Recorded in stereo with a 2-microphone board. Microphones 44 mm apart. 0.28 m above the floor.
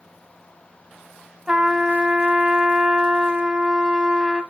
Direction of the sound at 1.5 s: 20° right (ahead or behind).